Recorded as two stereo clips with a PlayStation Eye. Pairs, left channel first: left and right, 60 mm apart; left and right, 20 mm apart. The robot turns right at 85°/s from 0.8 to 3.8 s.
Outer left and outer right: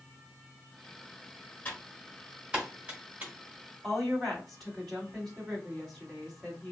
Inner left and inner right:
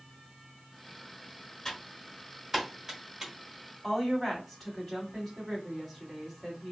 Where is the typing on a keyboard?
25° left (ahead or behind), 1.1 m; by 3.3 s 35° right (ahead or behind), 1.1 m.